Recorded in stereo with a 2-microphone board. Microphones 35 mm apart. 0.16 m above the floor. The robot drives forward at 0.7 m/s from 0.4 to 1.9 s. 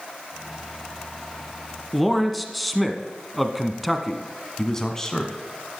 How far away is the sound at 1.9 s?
About 1.3 m.